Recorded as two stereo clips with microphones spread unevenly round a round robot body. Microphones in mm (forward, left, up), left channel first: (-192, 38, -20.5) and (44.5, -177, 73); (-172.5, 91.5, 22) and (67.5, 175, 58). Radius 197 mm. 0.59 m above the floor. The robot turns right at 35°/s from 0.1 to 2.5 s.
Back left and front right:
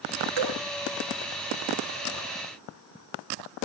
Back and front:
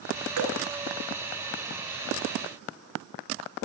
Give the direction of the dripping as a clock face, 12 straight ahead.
12 o'clock.